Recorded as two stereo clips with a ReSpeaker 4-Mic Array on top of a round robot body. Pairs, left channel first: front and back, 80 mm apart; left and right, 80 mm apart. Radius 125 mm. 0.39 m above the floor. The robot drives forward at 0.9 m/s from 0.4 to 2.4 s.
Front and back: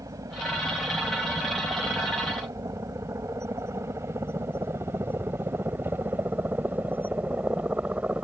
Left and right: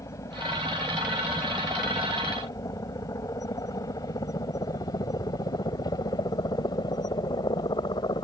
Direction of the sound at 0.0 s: 135° left.